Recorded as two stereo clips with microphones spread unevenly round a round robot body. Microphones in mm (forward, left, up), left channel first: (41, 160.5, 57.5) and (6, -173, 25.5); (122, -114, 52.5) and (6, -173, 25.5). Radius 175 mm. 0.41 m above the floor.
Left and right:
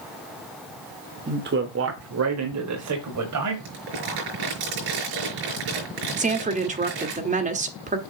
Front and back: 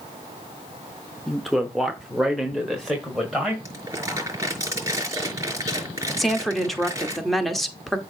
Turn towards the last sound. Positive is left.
turn(degrees=-85)